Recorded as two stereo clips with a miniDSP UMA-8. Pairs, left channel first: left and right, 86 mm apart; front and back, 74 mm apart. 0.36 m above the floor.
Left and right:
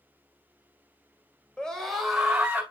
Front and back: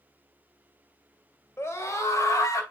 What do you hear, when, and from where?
1.6 s a scream: 20° left, 1.7 m; by 2.6 s 20° right, 1.9 m